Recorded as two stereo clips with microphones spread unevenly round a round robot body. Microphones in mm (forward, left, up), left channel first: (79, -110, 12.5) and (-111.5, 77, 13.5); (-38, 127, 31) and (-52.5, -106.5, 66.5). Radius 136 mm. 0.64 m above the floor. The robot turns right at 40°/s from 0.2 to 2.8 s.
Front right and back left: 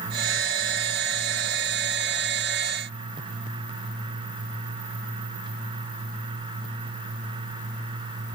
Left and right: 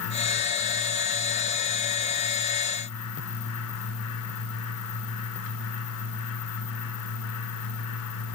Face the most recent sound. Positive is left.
No sound to turn to.